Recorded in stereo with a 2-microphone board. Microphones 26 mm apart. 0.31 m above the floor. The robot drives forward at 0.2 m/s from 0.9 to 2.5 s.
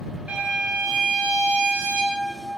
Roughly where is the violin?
Right.